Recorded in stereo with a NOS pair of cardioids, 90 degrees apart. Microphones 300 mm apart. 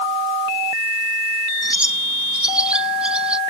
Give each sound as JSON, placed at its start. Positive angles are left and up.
{"t": 1.6, "sound": "a bird", "azimuth_deg": -5}